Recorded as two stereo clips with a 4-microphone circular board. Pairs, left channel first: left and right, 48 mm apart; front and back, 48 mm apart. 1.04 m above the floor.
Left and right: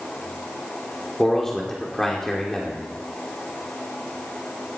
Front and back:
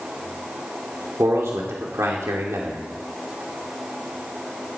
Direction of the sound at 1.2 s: 170° left.